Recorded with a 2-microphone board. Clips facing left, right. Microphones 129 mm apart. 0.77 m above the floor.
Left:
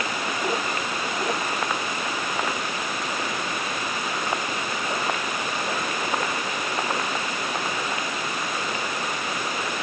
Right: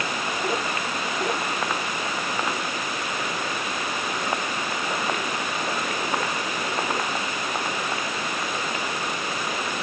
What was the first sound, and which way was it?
Only background noise.